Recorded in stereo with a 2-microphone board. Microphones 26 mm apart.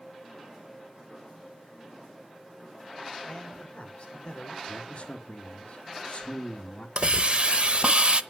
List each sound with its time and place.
3.3 s a man speaking: 50° left (ahead or behind), 4 m; by 4.6 s 70° left (ahead or behind), 3 m
4.7 s a man speaking: 60° left (ahead or behind), 1.5 m
7.0 s a hiss: 50° right (ahead or behind), 0.7 m